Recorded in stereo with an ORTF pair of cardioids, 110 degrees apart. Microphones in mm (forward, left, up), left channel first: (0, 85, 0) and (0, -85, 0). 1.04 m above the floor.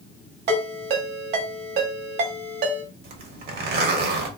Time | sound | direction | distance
0.5 | a ringtone | 65° right | 1.5 m
3.0 | a zipper | 60° right | 1.1 m